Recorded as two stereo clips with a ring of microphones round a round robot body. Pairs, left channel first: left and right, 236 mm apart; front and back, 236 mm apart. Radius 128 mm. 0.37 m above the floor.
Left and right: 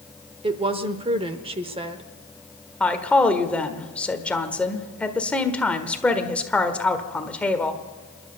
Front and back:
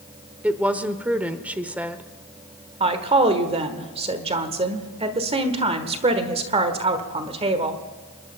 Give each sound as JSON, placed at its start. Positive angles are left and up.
{"t": 0.4, "sound": "a woman speaking", "azimuth_deg": -105, "distance_m": 0.9}
{"t": 2.8, "sound": "a woman speaking", "azimuth_deg": 165, "distance_m": 1.4}